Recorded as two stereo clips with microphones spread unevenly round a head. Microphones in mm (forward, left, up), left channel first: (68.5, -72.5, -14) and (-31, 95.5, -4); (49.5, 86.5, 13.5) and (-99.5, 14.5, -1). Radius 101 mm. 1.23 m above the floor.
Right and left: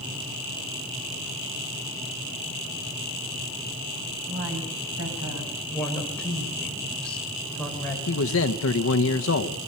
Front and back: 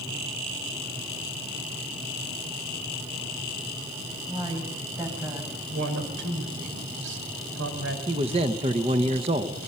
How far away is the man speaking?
About 1.0 m.